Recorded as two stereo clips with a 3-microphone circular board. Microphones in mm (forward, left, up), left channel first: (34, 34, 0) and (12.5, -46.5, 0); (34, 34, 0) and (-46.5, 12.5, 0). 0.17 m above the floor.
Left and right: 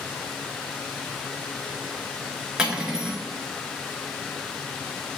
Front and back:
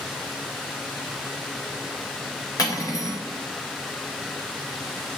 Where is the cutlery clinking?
25° right, 1.7 m.